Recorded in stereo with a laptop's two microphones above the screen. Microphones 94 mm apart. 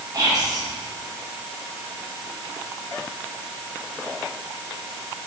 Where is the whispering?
40° right (ahead or behind), 1.2 m.